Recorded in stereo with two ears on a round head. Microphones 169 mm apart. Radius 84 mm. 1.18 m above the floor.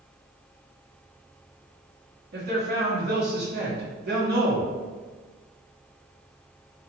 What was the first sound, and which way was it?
A man speaking, 55° right (ahead or behind).